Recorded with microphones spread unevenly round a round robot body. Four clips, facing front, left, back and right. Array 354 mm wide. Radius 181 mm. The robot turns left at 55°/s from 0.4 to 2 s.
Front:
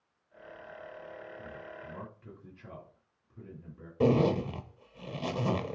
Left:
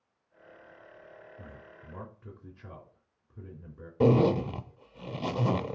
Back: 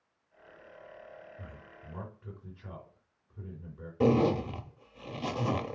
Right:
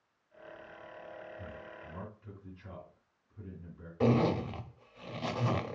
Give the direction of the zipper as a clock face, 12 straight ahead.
9 o'clock.